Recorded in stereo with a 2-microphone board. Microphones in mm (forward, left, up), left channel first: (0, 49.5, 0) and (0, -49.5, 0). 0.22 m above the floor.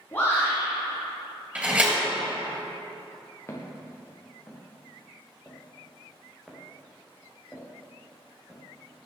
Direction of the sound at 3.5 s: 25° left (ahead or behind).